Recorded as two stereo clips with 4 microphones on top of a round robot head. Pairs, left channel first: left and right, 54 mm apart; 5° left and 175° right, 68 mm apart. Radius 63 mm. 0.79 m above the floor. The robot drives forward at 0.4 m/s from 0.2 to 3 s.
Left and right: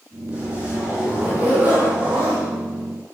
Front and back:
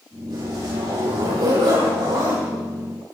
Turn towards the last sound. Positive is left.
turn(degrees=-160)